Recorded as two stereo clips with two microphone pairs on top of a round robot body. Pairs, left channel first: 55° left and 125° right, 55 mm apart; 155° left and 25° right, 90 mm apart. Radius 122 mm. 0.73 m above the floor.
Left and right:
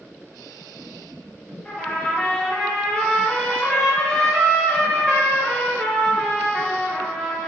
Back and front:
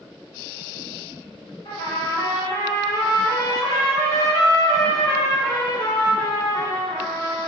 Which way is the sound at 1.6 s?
125° left.